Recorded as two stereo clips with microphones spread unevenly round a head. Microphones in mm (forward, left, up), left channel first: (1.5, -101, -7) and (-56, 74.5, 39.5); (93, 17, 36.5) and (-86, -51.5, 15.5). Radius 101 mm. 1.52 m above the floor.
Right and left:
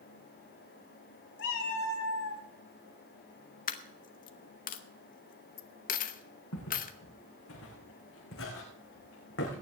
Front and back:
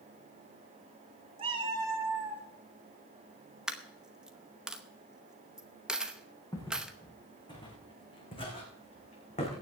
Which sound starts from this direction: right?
A cat meowing, at 1.4 s.